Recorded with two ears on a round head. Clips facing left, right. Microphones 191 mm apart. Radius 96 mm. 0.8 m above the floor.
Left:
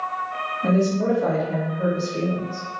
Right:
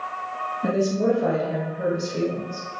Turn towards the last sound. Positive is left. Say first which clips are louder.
# left 1 dB
turn(degrees=-10)  # may be behind; listen again after turning